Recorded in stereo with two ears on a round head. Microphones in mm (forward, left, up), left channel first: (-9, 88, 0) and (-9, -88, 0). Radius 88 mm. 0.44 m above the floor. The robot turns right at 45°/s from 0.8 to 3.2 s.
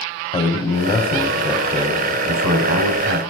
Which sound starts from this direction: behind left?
A man speaking, at 0.3 s.